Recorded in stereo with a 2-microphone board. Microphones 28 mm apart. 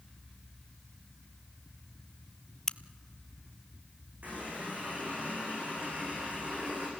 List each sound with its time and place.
2.7 s a crack: 20° left (ahead or behind), 0.5 m
4.2 s a running tap: 75° right (ahead or behind), 8 m